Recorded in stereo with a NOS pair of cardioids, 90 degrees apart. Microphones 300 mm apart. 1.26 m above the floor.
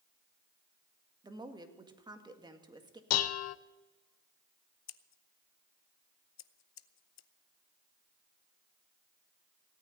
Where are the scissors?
60° left, 0.7 m.